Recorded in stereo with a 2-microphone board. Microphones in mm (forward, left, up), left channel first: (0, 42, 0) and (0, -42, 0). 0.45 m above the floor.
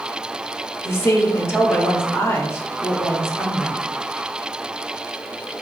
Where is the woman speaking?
30° left (ahead or behind), 0.8 m.